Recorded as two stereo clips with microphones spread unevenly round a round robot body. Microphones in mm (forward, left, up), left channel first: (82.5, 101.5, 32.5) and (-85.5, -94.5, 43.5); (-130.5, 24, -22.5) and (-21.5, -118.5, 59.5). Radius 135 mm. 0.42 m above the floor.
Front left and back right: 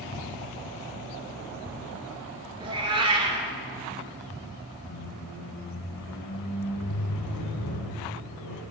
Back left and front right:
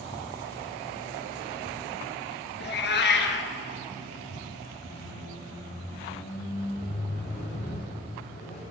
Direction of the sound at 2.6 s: 160° left.